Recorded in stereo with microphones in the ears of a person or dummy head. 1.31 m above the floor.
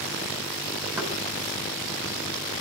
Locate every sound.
1.0 s knocking: 10° right (ahead or behind), 8 m